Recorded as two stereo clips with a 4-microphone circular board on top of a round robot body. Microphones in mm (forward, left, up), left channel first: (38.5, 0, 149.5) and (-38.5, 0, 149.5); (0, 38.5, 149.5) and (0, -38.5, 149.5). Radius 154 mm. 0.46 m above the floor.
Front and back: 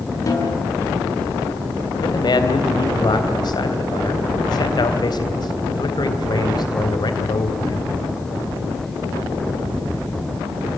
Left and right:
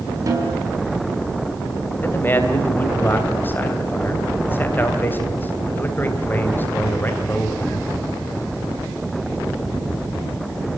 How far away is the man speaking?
About 3.5 m.